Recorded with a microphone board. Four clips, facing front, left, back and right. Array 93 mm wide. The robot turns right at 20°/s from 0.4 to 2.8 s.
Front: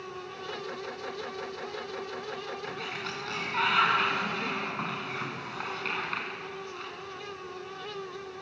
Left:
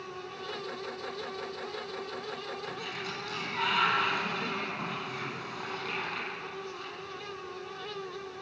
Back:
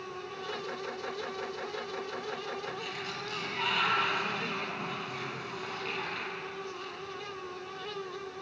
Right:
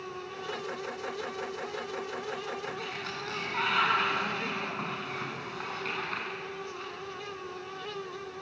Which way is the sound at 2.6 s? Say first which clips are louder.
Right 1 dB, front 1 dB; 25° right.